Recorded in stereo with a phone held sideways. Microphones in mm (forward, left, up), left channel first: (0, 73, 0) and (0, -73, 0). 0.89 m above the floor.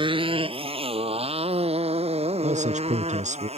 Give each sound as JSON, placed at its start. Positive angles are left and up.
{"t": 0.0, "sound": "a motorcycle", "side_deg": -35}
{"t": 2.4, "sound": "a man speaking", "side_deg": -55}